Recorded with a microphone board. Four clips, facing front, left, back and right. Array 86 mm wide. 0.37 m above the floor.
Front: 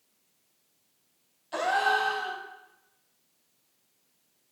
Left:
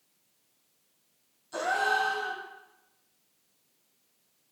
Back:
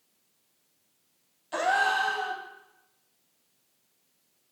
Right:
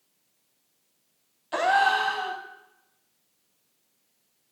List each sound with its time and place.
1.5 s a gasp: 95° right, 0.7 m